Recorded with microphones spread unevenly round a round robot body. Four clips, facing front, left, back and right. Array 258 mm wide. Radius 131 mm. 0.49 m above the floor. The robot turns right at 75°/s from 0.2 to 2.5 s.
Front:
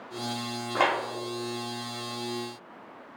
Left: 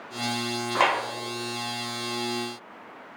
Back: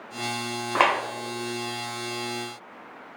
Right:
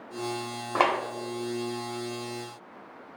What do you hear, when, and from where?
0.8 s a clap: 85° right, 0.7 m; by 1.0 s 70° right, 0.7 m